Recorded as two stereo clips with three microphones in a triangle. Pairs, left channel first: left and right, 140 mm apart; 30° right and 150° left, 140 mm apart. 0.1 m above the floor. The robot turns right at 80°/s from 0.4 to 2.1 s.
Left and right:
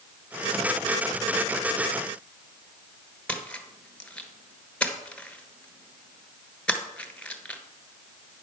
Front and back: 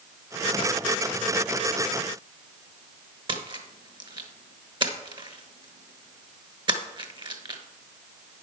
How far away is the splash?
About 1.2 m.